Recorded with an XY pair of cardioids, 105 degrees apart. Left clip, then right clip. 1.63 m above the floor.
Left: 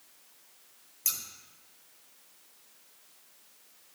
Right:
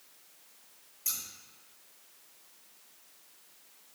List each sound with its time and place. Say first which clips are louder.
1.1 s scissors: left 3 dB; 65° left, 1.0 m